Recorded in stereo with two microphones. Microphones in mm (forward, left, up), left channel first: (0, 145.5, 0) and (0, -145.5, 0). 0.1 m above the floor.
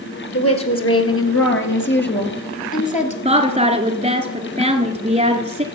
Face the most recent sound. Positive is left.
turn(degrees=-20)  # may be behind; listen again after turning